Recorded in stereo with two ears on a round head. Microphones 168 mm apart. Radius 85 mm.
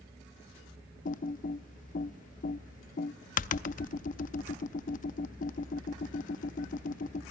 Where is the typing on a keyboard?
45° left (ahead or behind), 0.6 m.